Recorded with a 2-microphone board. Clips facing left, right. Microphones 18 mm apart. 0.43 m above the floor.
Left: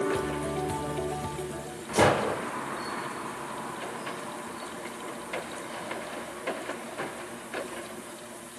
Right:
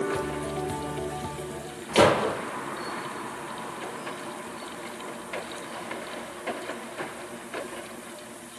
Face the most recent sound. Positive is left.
turn(degrees=-75)  # may be behind; listen again after turning